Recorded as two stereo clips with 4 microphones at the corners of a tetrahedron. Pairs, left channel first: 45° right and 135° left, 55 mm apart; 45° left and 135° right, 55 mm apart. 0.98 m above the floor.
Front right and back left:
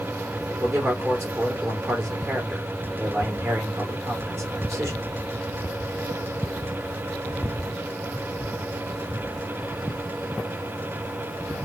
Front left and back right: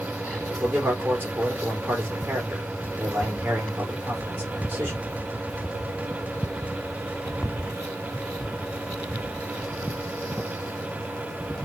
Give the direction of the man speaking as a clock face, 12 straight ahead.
6 o'clock.